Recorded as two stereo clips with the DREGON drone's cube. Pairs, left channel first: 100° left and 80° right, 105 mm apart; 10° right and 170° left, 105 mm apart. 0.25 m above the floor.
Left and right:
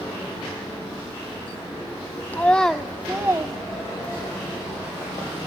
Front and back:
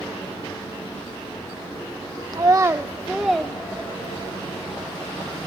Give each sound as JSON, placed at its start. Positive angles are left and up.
{"t": 2.3, "sound": "a child speaking", "azimuth_deg": 155, "distance_m": 0.7}